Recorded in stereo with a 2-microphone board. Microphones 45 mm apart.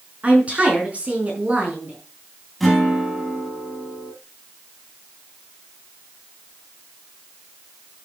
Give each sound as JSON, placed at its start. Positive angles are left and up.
{"t": 0.2, "sound": "a woman speaking", "side_deg": -30, "distance_m": 5.0}
{"t": 2.6, "sound": "a guitar", "side_deg": 0, "distance_m": 7.0}